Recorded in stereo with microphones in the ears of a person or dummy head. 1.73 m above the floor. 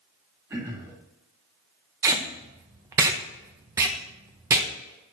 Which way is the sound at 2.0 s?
15° right (ahead or behind).